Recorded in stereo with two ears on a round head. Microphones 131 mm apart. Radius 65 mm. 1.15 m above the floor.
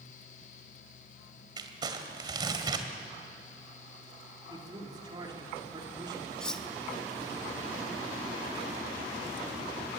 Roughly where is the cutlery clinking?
Centre.